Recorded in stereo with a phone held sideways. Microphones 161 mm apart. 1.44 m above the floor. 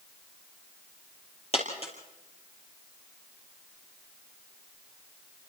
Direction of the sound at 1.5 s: 40° left (ahead or behind).